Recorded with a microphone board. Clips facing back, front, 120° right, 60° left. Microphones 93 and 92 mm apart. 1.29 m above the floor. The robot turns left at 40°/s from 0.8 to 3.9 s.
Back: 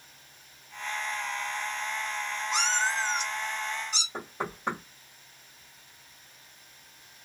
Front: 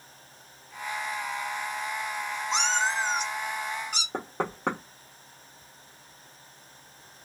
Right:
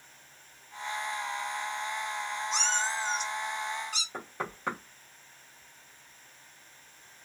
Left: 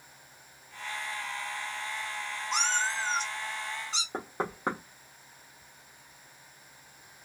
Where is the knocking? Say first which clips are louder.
Front 5 dB, left 6 dB; 5° left, 1.2 m.